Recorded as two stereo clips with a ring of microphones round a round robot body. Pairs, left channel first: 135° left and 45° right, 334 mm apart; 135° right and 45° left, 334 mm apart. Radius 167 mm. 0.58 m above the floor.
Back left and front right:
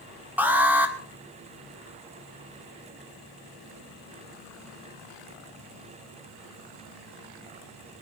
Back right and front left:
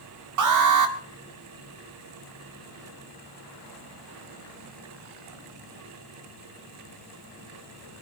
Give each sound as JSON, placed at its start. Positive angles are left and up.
{"t": 0.4, "sound": "an alarm", "azimuth_deg": 40, "distance_m": 1.8}